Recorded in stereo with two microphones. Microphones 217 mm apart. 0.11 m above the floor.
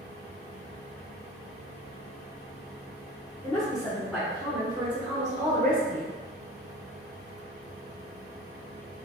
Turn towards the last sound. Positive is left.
turn(degrees=-50)  # may be behind; listen again after turning